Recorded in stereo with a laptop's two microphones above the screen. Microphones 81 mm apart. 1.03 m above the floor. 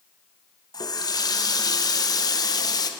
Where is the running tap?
55° left (ahead or behind), 0.5 m.